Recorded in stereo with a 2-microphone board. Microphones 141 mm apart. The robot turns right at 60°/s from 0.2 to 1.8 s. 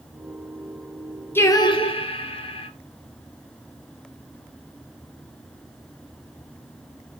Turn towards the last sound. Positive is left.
turn(degrees=40)  # may be behind; listen again after turning